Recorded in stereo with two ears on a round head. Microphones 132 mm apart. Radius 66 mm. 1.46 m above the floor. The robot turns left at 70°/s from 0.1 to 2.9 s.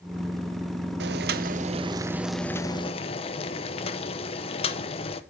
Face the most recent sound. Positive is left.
turn(degrees=140)